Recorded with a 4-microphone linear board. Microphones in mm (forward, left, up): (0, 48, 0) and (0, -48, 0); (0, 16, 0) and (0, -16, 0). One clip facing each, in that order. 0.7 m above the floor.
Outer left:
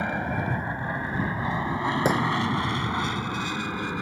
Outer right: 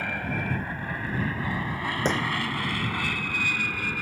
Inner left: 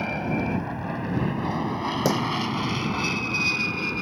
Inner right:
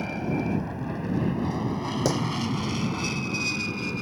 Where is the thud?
10° left (ahead or behind).